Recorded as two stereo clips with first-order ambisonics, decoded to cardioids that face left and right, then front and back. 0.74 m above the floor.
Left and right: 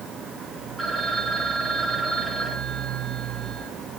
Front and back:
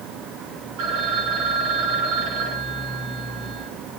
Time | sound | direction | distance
0.8 | a phone ringing | straight behind | 5 m